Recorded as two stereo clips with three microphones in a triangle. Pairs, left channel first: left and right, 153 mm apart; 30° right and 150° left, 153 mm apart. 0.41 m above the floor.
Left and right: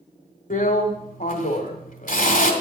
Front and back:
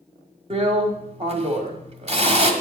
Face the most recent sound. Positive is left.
turn(degrees=110)